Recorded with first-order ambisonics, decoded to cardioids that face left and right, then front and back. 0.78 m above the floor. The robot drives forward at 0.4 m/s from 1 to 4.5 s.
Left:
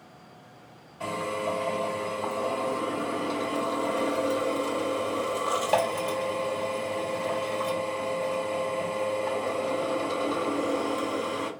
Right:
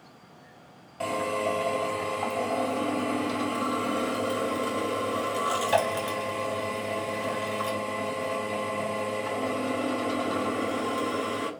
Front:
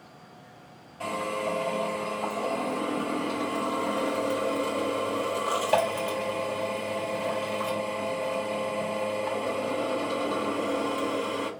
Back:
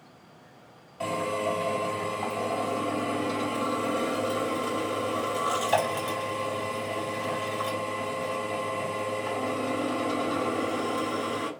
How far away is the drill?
About 2 m.